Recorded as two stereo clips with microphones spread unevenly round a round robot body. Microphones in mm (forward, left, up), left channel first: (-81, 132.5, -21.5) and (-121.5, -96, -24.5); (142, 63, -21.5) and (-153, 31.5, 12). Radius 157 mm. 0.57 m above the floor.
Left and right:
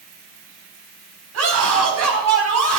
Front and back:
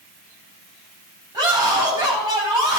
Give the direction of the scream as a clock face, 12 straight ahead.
3 o'clock.